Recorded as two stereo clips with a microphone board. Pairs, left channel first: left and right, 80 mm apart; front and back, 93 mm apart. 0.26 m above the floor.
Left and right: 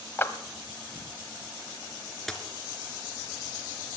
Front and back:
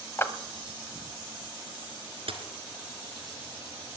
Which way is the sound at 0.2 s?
45° left.